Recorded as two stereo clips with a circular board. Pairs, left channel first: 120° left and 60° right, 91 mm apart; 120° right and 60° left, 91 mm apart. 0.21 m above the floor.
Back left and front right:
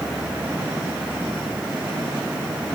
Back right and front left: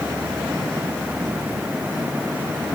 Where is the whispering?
No whispering in this recording.